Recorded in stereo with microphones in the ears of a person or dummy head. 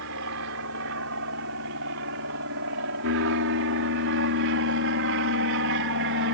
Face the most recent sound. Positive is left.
turn(degrees=-60)  # may be behind; listen again after turning